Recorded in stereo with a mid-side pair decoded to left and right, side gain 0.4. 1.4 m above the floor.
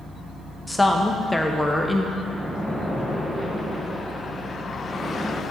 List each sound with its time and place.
0.7 s a woman speaking: 10° left, 1.1 m
2.2 s a splash: 10° right, 1.3 m